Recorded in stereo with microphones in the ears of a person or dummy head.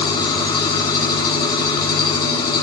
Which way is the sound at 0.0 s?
25° left (ahead or behind).